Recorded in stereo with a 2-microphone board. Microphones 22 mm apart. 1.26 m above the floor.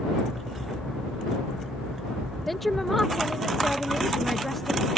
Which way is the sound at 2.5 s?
10° left (ahead or behind).